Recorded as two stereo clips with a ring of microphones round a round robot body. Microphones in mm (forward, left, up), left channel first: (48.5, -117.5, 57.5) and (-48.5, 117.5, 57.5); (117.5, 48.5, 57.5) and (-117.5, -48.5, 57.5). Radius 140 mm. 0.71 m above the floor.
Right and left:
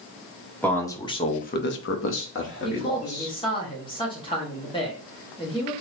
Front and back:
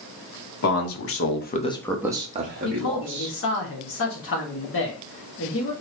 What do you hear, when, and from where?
0.6 s a man speaking: 15° left, 1.6 m; by 3.4 s 120° right, 2 m
2.6 s a man speaking: straight ahead, 1.5 m